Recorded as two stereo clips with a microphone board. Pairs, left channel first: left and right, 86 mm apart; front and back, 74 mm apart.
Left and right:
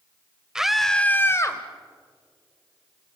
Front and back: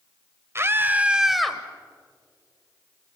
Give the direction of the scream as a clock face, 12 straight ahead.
6 o'clock.